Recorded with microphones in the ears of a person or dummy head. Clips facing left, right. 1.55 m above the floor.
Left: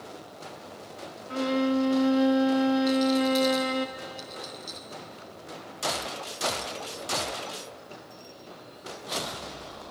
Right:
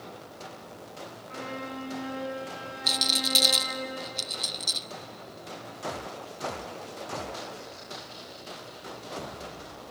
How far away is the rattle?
About 0.5 m.